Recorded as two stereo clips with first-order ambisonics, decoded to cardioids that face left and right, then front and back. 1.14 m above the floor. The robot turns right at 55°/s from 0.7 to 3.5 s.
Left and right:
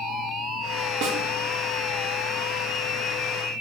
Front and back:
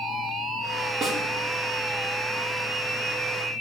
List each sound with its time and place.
1.0 s a snare drum: 115° right, 1.3 m; by 1.2 s 105° right, 1.3 m